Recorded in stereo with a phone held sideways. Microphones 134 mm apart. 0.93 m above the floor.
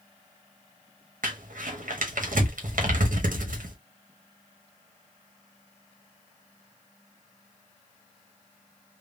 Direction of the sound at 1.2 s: 75° right (ahead or behind).